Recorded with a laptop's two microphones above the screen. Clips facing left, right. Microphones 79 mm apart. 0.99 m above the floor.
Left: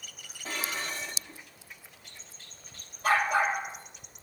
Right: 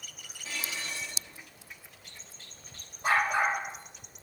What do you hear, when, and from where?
0.5 s dishes clattering: 45° left (ahead or behind), 1.1 m
3.0 s a dog barking: 25° right (ahead or behind), 7.5 m